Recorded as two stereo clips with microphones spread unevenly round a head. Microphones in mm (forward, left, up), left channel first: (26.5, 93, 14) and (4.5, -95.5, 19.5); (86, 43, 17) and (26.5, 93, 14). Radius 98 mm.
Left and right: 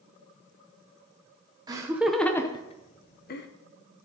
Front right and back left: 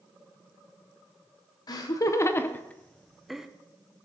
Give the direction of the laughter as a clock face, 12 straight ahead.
1 o'clock.